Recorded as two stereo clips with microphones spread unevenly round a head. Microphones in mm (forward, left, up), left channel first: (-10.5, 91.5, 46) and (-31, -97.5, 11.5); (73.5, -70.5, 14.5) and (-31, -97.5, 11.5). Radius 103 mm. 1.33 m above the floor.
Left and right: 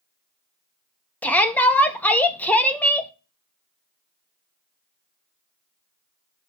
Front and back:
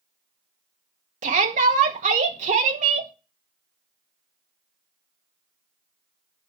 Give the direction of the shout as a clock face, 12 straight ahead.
6 o'clock.